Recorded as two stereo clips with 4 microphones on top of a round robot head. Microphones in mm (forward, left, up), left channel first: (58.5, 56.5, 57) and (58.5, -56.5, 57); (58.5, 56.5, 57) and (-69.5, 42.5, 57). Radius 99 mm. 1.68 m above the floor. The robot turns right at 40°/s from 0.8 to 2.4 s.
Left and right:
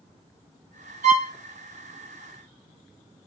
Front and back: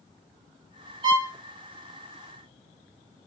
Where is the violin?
120° right, 2 m; by 1.3 s 110° right, 2 m.